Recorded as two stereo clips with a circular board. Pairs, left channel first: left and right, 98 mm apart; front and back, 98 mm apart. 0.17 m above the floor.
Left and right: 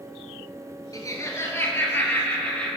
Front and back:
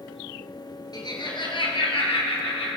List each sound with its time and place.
0.9 s laughter: 40° left, 2.5 m; by 2.7 s 15° left, 3.5 m